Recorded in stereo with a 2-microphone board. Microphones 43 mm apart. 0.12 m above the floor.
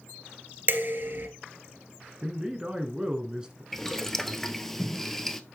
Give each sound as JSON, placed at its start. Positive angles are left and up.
{"t": 0.7, "sound": "dishes clattering", "side_deg": -50, "distance_m": 1.4}
{"t": 2.2, "sound": "a man speaking", "side_deg": -20, "distance_m": 1.5}
{"t": 3.7, "sound": "boiling", "side_deg": 5, "distance_m": 0.7}